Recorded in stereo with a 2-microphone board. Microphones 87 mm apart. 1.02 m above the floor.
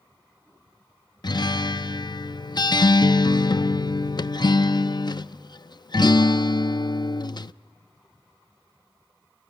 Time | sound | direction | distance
1.2 | a guitar | 55° left (ahead or behind) | 0.6 m